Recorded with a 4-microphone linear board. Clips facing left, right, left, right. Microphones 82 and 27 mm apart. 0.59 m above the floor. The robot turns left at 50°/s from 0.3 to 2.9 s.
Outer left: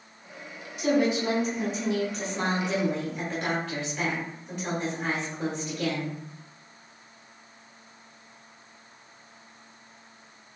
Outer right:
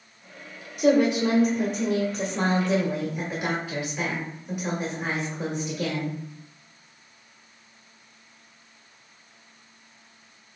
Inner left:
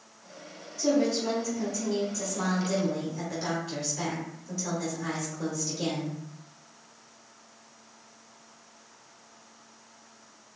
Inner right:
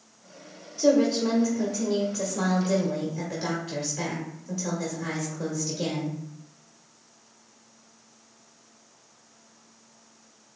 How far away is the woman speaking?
About 1.3 m.